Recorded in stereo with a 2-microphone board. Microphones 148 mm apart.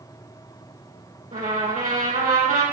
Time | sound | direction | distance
1.3 | a trumpet | 75° right (ahead or behind) | 5.5 m